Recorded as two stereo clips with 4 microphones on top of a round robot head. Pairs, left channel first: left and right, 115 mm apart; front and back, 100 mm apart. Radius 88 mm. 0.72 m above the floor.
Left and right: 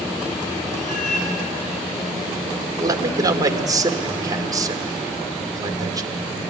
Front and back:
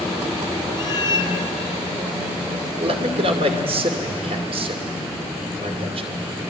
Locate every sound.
0.8 s a cat meowing: 45° left, 3 m
2.8 s a man speaking: 145° right, 2.5 m